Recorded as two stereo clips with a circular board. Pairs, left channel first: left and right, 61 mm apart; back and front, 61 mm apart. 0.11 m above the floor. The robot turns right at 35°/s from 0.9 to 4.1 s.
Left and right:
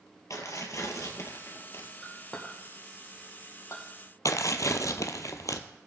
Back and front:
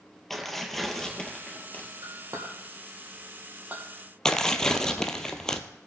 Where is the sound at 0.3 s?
95° left, 1.9 m; by 1.9 s 130° left, 1.9 m.